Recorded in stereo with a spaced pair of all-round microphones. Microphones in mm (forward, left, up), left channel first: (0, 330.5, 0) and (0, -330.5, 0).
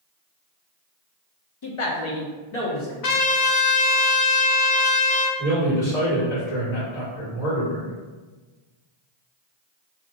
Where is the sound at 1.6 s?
35° left (ahead or behind), 0.7 m; by 2.9 s 75° left (ahead or behind), 1.4 m.